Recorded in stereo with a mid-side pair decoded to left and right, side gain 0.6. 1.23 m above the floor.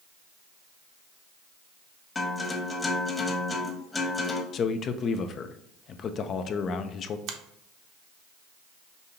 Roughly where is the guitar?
Ahead left.